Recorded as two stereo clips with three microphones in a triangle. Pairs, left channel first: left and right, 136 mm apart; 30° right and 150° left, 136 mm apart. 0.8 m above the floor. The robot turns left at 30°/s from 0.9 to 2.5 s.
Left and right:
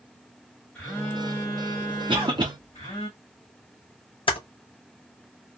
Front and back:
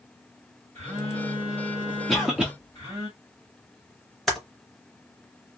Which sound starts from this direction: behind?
A phone buzzing, at 0.8 s.